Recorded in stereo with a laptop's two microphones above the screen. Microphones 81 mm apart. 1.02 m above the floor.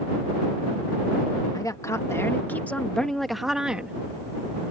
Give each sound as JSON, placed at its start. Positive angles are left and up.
{"t": 1.5, "sound": "a woman speaking", "side_deg": 50}